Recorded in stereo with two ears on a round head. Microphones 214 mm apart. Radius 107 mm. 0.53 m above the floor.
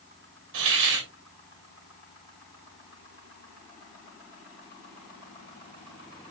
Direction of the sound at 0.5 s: 60° right (ahead or behind).